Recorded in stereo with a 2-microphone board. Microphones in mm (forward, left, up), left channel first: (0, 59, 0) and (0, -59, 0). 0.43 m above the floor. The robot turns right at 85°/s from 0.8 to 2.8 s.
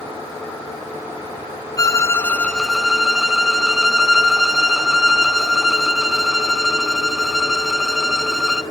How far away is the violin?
About 0.7 m.